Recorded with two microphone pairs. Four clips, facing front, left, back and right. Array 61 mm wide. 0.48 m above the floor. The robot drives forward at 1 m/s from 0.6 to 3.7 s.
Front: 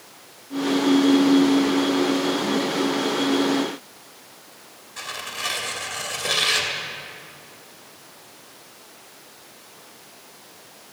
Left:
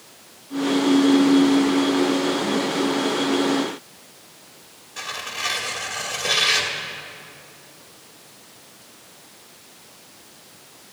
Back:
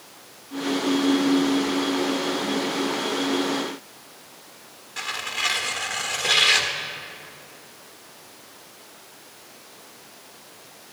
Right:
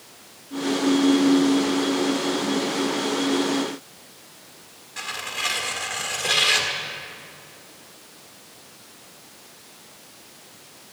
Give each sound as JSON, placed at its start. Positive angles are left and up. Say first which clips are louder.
{"t": 5.0, "sound": "tearing paper", "louder": "even, back 3 dB", "azimuth_deg": -170, "distance_m": 1.6}